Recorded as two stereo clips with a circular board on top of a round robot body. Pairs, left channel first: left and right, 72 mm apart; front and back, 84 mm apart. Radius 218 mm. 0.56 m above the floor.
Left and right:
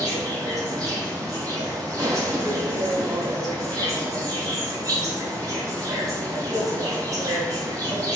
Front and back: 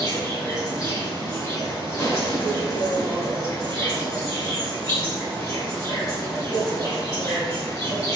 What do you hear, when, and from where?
0.0 s an insect: 50° right, 5.5 m